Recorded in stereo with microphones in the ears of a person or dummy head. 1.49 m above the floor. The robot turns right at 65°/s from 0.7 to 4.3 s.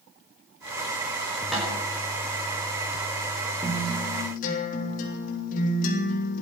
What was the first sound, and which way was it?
A snare drum, 5° left (ahead or behind).